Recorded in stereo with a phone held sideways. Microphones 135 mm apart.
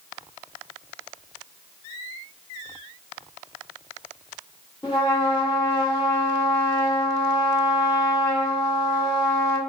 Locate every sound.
4.8 s a trumpet: 30° left (ahead or behind), 1.0 m